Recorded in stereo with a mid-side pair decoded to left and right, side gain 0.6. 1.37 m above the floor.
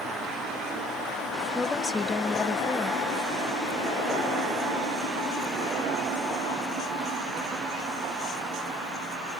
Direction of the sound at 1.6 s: 15° left.